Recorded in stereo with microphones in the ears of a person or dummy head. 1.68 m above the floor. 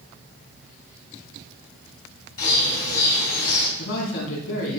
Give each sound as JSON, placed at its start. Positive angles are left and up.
{"t": 2.4, "sound": "a bird", "side_deg": 55, "distance_m": 2.5}
{"t": 3.8, "sound": "a man speaking", "side_deg": 75, "distance_m": 3.5}